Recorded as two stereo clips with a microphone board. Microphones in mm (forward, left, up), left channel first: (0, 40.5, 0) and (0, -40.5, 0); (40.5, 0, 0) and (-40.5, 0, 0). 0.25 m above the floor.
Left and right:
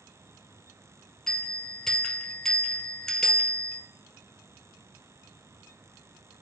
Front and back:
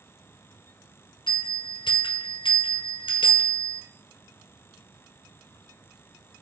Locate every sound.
1.3 s a bell: 10° left, 1.2 m